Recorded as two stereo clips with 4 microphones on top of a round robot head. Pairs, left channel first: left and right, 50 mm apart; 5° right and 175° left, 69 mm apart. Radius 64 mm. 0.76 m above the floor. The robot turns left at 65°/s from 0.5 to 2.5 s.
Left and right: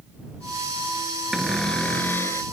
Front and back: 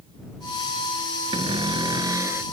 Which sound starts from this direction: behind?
A cupboard door, at 1.3 s.